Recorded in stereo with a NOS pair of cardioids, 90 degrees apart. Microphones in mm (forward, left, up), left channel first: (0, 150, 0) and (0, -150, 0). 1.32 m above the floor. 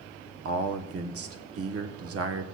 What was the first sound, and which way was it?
A man speaking, 55° right.